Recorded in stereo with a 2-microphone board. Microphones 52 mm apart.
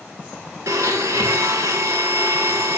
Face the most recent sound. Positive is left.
turn(degrees=-80)